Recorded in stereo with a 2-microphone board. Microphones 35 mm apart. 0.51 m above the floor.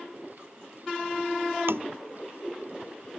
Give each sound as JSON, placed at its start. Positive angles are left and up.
{"t": 1.7, "sound": "tapping", "side_deg": -85}